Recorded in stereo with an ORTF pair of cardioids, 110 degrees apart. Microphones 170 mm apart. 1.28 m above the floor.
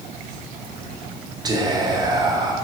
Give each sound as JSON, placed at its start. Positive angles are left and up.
{"t": 1.4, "sound": "whispering", "azimuth_deg": -25, "distance_m": 0.6}